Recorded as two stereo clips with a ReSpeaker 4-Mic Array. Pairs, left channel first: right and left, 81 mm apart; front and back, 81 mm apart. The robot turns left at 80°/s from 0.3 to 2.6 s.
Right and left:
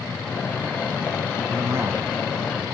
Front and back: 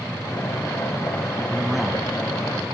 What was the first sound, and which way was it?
A man speaking, 115° left.